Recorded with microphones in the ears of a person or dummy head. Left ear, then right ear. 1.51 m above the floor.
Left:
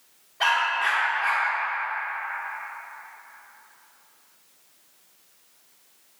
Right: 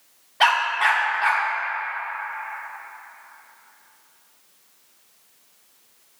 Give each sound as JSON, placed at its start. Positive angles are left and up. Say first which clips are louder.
{"t": 0.4, "sound": "a dog barking", "louder": "right 4 dB", "side_deg": -20, "distance_m": 1.1}